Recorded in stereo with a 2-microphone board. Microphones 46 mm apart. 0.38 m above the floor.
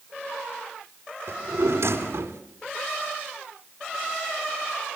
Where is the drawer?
70° right (ahead or behind), 2.5 m.